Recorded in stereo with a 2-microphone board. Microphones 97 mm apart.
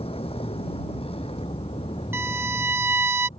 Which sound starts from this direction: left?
A vehicle, at 0.0 s.